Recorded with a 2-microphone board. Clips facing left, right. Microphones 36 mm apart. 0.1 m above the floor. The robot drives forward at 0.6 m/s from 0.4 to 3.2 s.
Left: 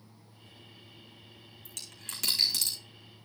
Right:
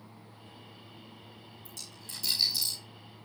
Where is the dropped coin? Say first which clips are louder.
Left 3 dB; 65° left (ahead or behind), 4 m; by 2.8 s 75° left (ahead or behind), 4 m.